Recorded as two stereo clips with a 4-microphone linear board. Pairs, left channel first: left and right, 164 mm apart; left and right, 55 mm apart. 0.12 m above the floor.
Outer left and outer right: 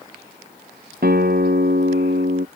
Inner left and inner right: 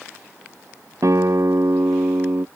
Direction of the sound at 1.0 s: 70° right (ahead or behind).